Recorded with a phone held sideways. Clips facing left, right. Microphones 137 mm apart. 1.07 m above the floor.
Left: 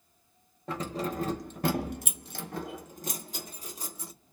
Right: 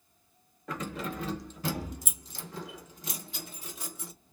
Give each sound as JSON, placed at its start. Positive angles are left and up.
{"t": 0.7, "sound": "keys jangling", "side_deg": 30, "distance_m": 0.8}